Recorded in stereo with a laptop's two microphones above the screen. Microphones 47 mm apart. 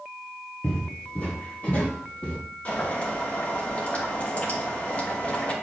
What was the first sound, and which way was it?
Footsteps, 25° left (ahead or behind).